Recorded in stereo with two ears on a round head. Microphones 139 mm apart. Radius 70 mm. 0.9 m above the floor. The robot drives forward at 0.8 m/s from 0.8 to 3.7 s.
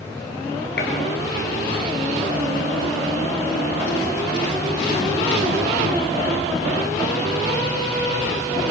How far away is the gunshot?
About 6.5 m.